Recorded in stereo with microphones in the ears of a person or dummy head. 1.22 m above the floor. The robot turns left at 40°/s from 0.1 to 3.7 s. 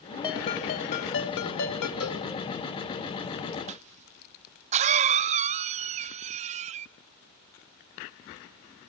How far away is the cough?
About 0.5 m.